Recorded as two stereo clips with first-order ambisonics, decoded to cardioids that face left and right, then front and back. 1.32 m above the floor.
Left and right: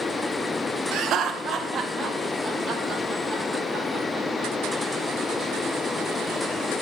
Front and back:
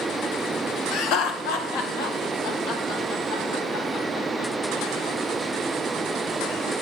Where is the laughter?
45° right, 0.8 m; by 4.8 s straight ahead, 4 m.